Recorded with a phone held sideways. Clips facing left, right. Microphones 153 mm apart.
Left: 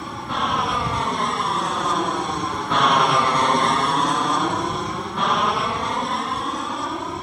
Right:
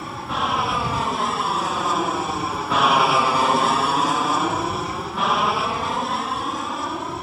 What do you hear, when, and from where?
0.0 s an aircraft: centre (ahead or behind)